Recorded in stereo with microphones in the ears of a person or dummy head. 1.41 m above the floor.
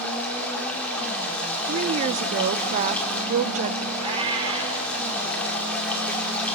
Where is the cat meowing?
35° right (ahead or behind), 2 m.